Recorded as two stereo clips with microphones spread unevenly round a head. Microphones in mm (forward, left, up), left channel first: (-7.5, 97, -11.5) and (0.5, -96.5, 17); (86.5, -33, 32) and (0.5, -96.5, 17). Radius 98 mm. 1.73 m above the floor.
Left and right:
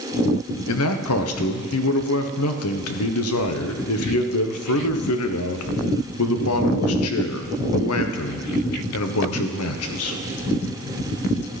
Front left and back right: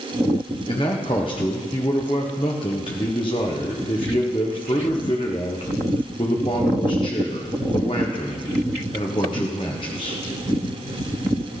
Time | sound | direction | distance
0.7 | a man speaking | 100° left | 1.3 m